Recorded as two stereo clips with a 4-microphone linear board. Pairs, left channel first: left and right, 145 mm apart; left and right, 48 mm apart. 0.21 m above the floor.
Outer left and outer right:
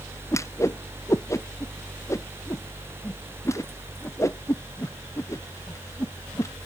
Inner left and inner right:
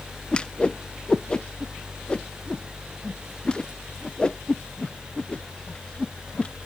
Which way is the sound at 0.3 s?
20° left (ahead or behind).